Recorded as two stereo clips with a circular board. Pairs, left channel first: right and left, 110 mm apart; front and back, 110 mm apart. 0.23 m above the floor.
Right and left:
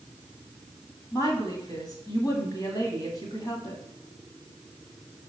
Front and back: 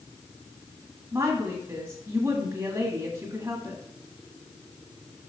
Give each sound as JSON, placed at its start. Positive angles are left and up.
{"t": 1.1, "sound": "a woman speaking", "azimuth_deg": -125, "distance_m": 1.6}